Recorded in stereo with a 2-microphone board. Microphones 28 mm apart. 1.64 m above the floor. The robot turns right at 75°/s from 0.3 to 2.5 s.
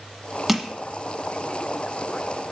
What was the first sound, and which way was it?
Crushing, 5° right (ahead or behind).